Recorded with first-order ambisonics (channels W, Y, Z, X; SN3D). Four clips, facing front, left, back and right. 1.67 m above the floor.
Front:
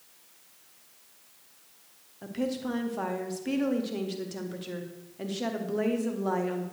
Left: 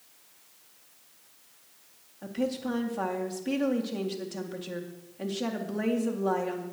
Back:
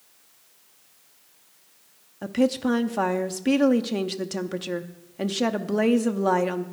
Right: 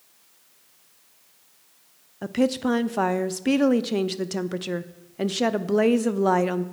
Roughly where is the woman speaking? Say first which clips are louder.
Right 8 dB, back 9 dB; behind right.